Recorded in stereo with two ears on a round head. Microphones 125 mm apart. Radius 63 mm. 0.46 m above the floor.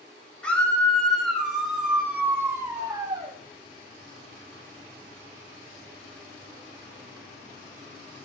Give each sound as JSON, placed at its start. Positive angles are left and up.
{"t": 0.4, "sound": "a scream", "side_deg": 10, "distance_m": 3.0}